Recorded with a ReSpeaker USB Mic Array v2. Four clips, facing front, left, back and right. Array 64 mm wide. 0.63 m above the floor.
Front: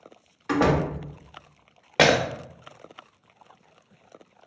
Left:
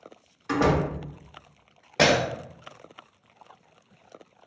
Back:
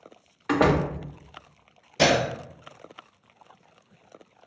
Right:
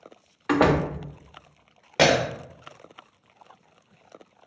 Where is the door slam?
105° right, 0.5 m.